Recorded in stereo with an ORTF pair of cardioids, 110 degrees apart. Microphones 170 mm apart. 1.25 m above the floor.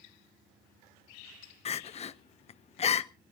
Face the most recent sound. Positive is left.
turn(degrees=35)